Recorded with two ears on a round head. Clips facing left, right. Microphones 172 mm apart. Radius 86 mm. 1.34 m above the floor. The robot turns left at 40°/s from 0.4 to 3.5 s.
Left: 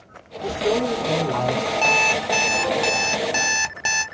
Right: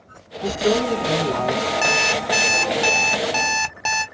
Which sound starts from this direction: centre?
An alarm clock, at 1.8 s.